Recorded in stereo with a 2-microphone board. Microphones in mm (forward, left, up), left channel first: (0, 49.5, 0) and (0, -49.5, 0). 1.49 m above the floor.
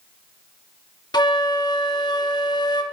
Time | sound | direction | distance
1.1 | a flute | 45° left (ahead or behind) | 1.4 m